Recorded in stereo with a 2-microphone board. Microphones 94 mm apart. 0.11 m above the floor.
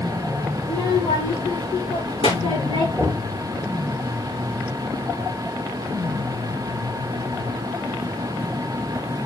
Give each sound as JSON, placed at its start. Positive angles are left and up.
{"t": 0.6, "sound": "a child speaking", "side_deg": 75, "distance_m": 8.0}
{"t": 3.0, "sound": "knocking", "side_deg": 20, "distance_m": 3.5}